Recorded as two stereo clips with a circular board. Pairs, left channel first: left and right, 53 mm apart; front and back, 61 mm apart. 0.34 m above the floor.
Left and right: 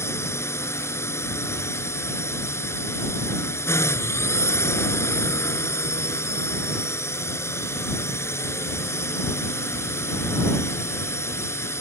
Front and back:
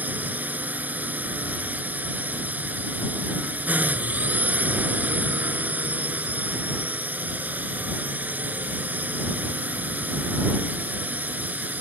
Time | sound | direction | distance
0.0 | a drone | 120° left | ?